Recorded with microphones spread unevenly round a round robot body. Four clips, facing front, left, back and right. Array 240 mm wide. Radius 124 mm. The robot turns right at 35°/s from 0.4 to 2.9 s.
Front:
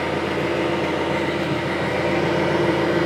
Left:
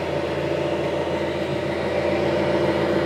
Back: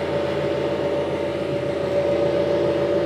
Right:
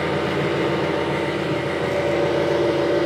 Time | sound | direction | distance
0.0 | an engine running | 75° right | 5 m